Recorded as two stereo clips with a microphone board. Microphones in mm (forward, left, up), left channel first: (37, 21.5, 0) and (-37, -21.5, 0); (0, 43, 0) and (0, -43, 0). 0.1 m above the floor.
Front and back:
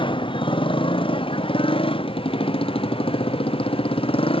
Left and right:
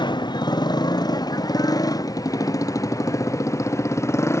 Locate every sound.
0.0 s a motorcycle: 55° left; by 4.4 s 30° left